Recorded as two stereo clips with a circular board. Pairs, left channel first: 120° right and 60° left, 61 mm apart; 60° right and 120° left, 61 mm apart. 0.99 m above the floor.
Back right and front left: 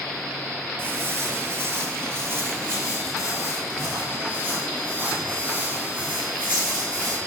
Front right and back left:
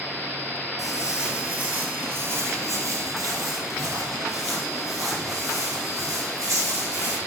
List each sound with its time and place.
0.8 s footsteps: 35° left, 1.3 m; by 7.2 s 125° left, 4 m